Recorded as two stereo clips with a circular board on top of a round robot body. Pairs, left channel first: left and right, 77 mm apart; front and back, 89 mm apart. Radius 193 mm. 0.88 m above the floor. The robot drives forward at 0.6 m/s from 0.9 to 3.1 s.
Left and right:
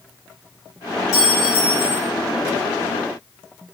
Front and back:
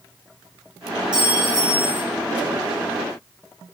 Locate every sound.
1.1 s a clink: 135° left, 1.2 m; by 2.0 s 150° left, 1.7 m